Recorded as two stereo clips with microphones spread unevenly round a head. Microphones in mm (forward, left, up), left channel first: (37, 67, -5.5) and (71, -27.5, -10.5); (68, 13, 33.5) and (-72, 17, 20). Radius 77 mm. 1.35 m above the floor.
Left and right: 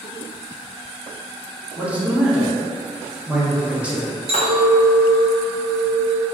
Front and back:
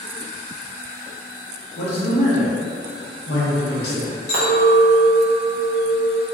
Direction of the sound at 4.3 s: 50° right.